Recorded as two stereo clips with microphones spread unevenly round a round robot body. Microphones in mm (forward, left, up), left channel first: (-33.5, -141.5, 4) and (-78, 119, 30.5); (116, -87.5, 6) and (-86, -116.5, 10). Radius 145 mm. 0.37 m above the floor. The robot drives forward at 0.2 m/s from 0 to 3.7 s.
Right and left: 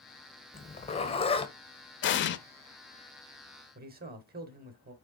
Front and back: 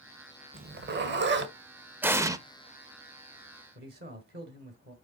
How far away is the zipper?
About 1.0 m.